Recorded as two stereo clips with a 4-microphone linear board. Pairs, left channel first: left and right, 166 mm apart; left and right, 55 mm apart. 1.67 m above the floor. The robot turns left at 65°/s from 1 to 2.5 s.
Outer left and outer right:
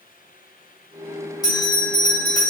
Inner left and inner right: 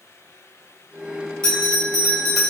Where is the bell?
20° left (ahead or behind), 1.4 m; by 2.5 s centre (ahead or behind), 1.4 m.